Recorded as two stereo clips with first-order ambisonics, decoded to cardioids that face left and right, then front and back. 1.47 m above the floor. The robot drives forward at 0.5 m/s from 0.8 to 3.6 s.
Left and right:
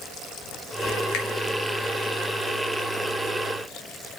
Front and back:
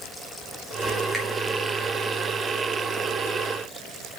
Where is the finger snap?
90° left, 2.5 m.